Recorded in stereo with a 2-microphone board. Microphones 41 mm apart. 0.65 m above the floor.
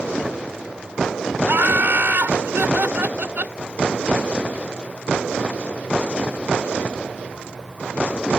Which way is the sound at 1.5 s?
60° right (ahead or behind).